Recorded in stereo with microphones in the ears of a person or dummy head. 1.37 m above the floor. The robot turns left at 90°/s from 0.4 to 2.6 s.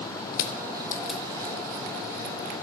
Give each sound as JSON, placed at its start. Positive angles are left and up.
{"t": 0.3, "sound": "crushing", "side_deg": 50, "distance_m": 0.7}